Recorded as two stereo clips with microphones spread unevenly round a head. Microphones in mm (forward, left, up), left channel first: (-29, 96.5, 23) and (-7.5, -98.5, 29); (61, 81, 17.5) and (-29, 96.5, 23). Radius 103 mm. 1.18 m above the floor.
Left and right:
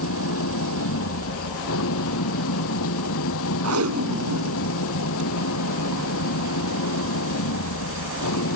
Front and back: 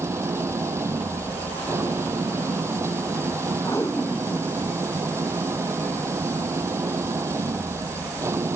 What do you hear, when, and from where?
0.0 s an engine running: 110° left
3.6 s tape being pulled: 85° right